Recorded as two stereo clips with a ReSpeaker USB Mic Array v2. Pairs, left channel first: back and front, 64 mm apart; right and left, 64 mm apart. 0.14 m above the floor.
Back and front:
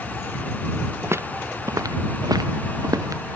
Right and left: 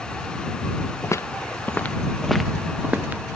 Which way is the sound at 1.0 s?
50° right.